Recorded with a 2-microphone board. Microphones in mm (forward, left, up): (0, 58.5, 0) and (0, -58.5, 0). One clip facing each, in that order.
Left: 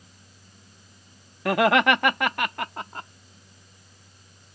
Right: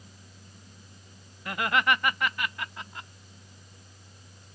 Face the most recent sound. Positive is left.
turn(degrees=45)  # may be behind; listen again after turning